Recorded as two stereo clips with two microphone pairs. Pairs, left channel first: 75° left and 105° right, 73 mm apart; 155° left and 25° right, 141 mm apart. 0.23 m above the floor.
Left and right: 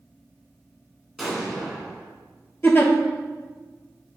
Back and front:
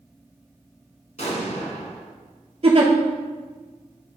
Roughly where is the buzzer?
I don't hear a buzzer.